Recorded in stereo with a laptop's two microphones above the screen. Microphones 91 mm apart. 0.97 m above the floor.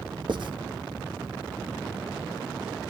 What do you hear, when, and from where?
0.3 s writing: 60° right (ahead or behind), 1.6 m